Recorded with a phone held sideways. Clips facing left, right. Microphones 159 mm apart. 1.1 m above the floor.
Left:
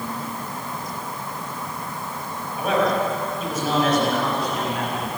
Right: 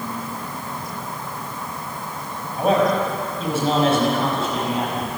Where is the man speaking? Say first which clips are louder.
Right 3 dB; 35° right (ahead or behind), 6 m; by 5.1 s 25° right (ahead or behind), 7 m.